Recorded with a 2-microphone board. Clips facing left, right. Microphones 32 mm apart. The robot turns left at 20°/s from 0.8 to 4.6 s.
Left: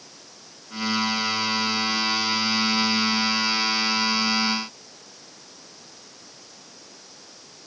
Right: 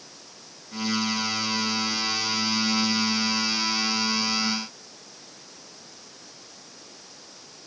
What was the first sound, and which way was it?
Only background noise.